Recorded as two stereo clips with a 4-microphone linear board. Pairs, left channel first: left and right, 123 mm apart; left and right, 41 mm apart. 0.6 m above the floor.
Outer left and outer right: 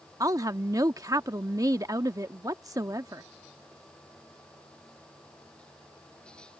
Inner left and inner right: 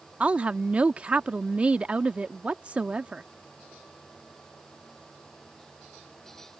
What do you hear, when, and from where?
0.2 s a woman speaking: 30° right (ahead or behind)